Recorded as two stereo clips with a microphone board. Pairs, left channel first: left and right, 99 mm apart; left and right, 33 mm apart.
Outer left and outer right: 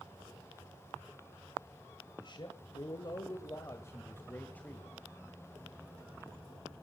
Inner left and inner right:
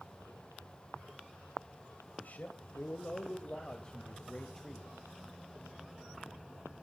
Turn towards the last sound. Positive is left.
turn(degrees=10)  # may be behind; listen again after turning